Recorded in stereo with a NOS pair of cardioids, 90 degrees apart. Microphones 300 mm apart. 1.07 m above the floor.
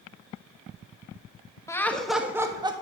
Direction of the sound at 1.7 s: 10° left.